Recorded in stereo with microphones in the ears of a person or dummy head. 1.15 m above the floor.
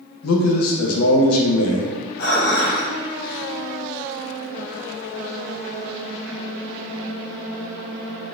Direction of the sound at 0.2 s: 85° left.